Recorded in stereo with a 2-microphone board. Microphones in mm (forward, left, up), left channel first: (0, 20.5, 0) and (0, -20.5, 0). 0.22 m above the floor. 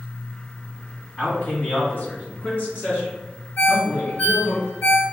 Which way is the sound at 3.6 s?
55° left (ahead or behind).